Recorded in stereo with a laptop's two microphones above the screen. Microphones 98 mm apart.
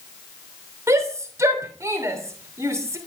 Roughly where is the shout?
Right.